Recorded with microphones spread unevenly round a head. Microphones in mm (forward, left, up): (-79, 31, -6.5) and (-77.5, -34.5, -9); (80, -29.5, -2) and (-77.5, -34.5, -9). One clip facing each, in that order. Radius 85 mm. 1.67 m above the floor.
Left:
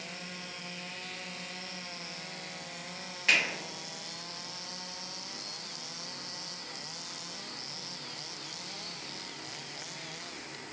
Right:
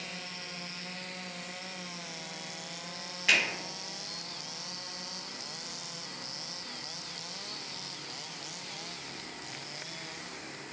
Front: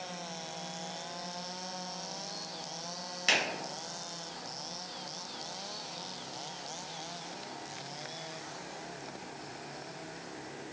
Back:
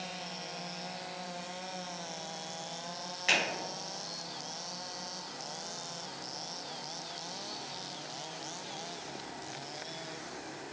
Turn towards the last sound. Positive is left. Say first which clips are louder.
# even, even
turn(degrees=5)